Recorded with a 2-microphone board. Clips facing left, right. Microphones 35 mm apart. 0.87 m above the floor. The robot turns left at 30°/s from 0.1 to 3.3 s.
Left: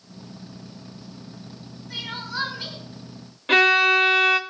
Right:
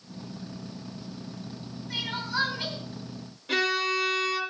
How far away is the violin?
About 0.9 m.